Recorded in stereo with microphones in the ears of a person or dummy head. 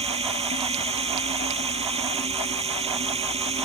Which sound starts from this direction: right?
Running water, at 0.0 s.